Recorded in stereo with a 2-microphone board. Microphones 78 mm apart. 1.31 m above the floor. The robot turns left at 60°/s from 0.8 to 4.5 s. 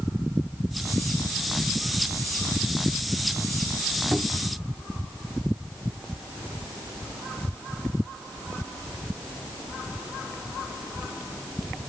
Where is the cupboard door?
Centre (ahead or behind); by 4.6 s 25° right (ahead or behind).